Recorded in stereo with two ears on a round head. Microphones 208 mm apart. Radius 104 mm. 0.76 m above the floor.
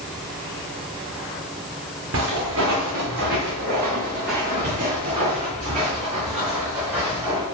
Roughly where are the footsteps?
Right.